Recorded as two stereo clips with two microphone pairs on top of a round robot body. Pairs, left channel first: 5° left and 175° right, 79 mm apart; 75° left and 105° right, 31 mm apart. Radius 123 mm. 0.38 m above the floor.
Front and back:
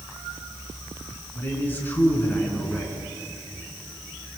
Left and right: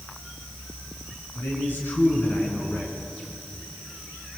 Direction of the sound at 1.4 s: 70° left.